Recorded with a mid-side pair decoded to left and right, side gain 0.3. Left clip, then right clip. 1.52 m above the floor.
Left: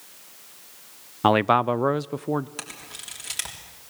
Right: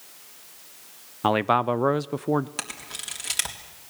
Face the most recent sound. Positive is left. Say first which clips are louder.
# right 3 dB
turn(degrees=-45)